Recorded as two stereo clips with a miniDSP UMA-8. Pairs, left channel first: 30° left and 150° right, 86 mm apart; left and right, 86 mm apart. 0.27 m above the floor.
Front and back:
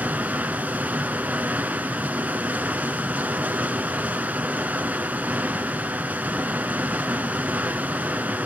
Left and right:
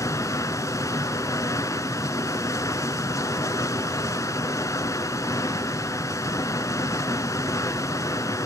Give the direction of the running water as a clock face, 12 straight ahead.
7 o'clock.